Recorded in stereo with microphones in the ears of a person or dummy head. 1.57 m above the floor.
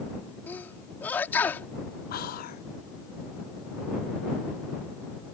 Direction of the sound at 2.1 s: 55° left (ahead or behind).